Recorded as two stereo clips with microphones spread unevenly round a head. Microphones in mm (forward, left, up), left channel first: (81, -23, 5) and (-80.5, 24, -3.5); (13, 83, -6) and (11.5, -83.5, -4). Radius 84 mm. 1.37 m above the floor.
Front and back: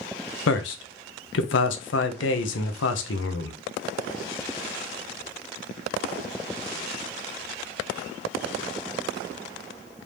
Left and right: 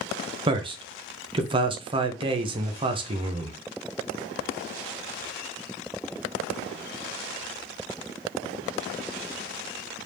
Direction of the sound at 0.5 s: 30° right.